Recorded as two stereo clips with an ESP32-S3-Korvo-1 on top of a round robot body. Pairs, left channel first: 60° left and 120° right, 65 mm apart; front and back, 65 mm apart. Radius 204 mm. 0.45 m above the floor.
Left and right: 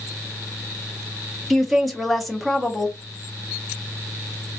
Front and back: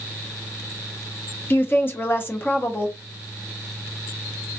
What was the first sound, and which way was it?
A woman speaking, 30° right.